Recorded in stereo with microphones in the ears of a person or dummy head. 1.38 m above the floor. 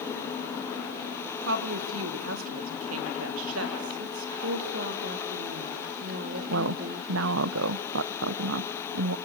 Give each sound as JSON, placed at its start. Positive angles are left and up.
{"t": 1.4, "sound": "a woman speaking", "side_deg": -70, "distance_m": 2.5}
{"t": 4.4, "sound": "a woman speaking", "side_deg": -60, "distance_m": 3.0}
{"t": 6.5, "sound": "a woman speaking", "side_deg": -70, "distance_m": 0.6}